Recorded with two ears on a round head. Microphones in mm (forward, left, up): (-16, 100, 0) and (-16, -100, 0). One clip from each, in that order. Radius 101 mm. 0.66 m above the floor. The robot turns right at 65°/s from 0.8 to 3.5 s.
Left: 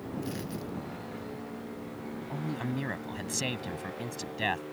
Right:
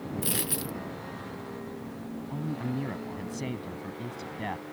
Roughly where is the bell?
I don't hear a bell.